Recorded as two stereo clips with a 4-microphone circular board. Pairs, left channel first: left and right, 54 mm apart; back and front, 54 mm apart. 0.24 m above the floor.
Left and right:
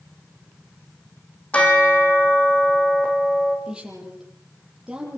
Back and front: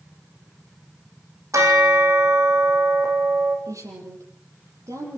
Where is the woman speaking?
10° right, 8 m.